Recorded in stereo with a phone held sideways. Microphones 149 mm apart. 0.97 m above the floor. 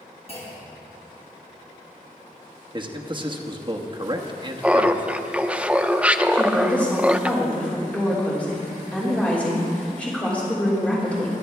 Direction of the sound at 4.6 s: 10° right (ahead or behind).